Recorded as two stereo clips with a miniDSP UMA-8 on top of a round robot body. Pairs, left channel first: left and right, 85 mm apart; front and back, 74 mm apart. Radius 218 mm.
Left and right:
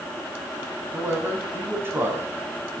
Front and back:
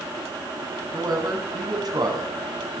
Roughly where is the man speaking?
Behind right.